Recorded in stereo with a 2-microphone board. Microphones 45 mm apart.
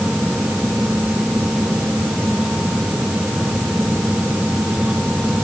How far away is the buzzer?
No buzzer in this recording.